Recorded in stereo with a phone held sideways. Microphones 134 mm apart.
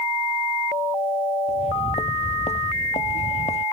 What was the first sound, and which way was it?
Footsteps, 60° left (ahead or behind).